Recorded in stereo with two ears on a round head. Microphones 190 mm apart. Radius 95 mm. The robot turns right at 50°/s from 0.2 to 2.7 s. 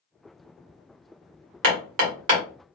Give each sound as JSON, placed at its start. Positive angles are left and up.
{"t": 1.6, "sound": "hammering", "side_deg": -65, "distance_m": 1.3}